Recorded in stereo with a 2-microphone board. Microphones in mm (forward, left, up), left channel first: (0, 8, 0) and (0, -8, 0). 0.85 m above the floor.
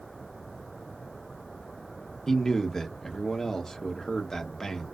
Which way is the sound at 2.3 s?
30° left (ahead or behind).